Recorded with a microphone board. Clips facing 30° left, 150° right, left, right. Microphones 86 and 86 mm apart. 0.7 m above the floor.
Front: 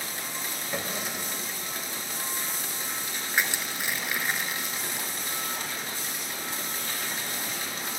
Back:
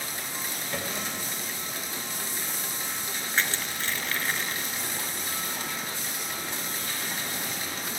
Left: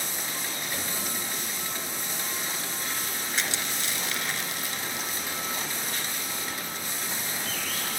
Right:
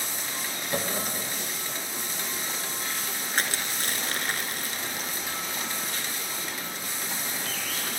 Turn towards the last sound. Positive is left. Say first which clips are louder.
# front 1 dB, right 3 dB
turn(degrees=-50)